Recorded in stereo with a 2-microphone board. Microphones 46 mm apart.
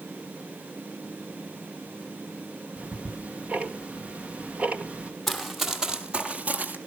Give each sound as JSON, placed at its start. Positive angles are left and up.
{"t": 2.8, "sound": "ticking", "side_deg": -30, "distance_m": 1.5}
{"t": 5.3, "sound": "running footsteps", "side_deg": 5, "distance_m": 2.5}